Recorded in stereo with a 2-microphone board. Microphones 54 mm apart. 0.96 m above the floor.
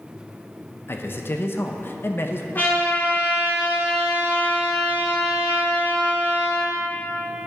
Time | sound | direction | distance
0.9 | a man speaking | 45° left (ahead or behind) | 0.6 m
2.5 | a trumpet | 40° left (ahead or behind) | 2.5 m